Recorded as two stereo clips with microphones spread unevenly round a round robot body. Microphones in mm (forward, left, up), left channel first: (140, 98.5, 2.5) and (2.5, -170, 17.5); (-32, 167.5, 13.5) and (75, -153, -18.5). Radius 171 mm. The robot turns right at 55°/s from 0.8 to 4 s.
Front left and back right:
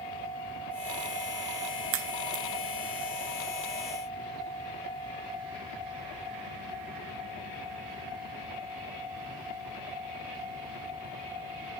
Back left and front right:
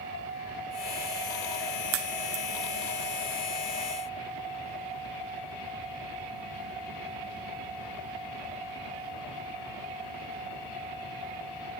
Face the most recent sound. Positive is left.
turn(degrees=0)